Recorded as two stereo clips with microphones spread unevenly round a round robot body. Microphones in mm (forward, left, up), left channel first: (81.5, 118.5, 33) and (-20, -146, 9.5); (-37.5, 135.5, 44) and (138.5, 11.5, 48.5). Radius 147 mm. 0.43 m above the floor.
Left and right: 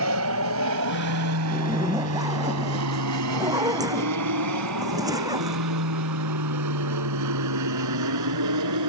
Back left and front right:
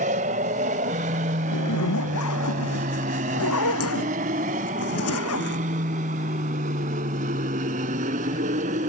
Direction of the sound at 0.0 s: 90° right.